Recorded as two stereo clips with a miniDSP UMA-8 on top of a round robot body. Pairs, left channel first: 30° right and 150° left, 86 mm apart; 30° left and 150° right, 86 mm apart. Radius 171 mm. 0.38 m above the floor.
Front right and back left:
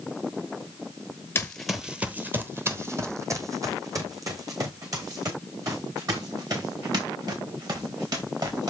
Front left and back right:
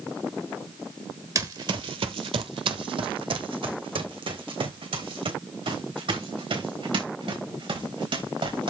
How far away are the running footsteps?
About 0.6 m.